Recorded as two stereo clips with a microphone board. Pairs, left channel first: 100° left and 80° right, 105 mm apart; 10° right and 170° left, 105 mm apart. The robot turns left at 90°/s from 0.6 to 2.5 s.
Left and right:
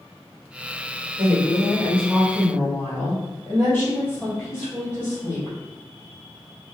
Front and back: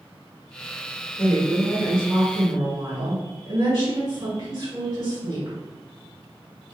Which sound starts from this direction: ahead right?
A woman speaking, at 1.2 s.